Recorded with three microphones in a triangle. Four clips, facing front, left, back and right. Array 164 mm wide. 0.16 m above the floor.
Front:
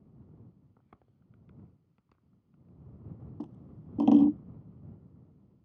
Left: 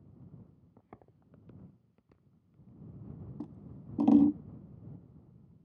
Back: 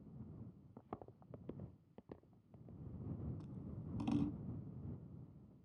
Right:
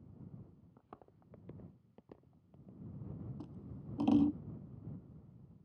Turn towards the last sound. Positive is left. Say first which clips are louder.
# left 4 dB, front 8 dB
turn(degrees=15)